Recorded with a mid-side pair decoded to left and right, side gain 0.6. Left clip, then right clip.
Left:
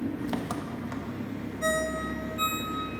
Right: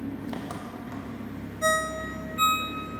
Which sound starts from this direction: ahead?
A ringtone, at 1.6 s.